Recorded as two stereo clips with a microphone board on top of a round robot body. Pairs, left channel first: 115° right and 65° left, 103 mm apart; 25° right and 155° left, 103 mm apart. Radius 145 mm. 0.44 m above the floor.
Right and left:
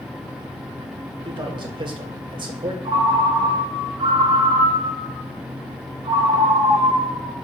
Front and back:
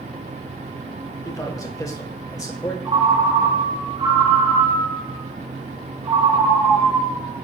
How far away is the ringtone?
About 3.5 m.